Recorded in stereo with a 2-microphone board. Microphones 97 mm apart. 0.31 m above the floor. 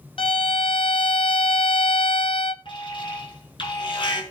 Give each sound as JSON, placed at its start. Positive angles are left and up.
{"t": 0.2, "sound": "a violin", "side_deg": 65, "distance_m": 0.7}
{"t": 2.6, "sound": "an alarm", "side_deg": 60, "distance_m": 4.5}